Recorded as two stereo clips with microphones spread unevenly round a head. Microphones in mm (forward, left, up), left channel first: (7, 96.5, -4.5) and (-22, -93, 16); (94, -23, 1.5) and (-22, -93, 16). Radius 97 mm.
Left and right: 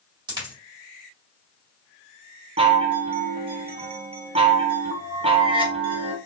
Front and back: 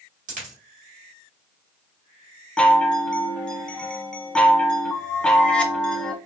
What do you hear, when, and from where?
0.3 s a dropped coin: 160° right, 2 m
2.6 s a chime: 55° right, 0.8 m